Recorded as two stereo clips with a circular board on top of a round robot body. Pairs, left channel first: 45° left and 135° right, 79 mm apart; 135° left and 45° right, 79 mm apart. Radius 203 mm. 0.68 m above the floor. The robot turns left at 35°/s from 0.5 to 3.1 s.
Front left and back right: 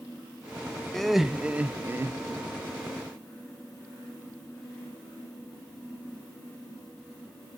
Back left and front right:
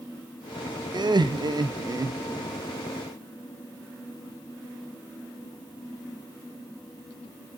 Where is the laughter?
40° right, 0.7 m; by 2.5 s 90° right, 0.7 m.